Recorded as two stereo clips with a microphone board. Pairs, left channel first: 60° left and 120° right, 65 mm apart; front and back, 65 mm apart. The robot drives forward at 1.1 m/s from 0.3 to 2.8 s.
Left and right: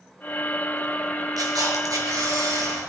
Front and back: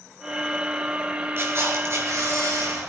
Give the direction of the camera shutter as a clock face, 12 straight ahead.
4 o'clock.